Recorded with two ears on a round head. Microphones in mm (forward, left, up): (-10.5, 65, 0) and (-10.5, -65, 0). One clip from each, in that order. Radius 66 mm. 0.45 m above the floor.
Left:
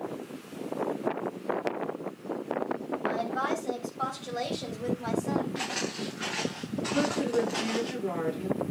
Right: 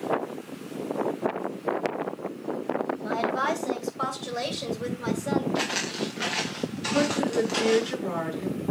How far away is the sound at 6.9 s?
About 6 m.